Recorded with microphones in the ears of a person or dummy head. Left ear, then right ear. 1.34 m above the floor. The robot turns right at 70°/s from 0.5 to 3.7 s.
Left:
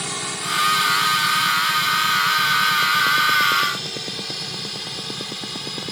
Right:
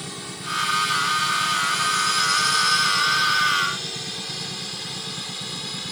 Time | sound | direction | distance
0.0 | a drone | 40° left (ahead or behind) | ?